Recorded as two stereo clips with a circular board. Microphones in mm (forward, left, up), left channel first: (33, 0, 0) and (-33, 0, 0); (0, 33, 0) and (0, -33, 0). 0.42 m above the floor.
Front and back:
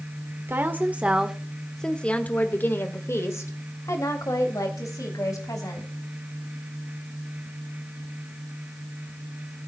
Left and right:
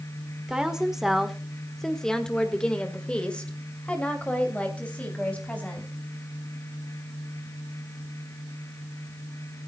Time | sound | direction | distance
0.5 | a woman speaking | 160° right | 1.3 m